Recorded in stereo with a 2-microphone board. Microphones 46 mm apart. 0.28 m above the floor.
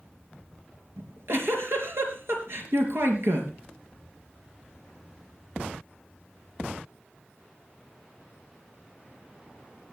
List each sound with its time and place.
1.0 s a giggle: 70° right (ahead or behind), 4 m